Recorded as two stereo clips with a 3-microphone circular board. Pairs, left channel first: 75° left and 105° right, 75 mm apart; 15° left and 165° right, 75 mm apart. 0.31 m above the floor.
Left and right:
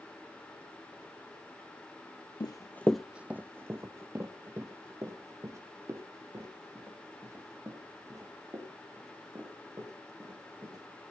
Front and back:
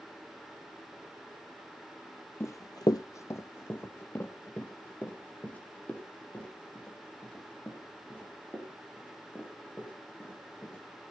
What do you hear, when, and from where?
2.4 s running footsteps: 70° left, 0.5 m; by 10.9 s 60° right, 9 m